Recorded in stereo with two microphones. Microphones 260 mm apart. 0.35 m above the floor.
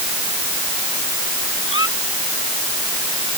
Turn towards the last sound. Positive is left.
turn(degrees=55)  # may be behind; listen again after turning